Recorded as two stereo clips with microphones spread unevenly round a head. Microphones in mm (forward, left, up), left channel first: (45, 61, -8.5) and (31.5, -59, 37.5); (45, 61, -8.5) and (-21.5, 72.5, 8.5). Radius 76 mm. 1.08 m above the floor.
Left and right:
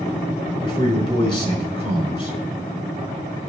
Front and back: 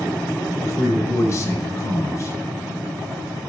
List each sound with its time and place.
0.6 s a man speaking: 40° left, 5.5 m